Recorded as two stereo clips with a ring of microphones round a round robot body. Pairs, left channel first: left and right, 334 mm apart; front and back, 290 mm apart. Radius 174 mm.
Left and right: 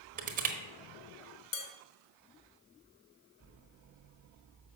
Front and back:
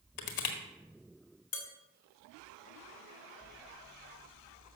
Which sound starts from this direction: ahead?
Crushing, at 0.2 s.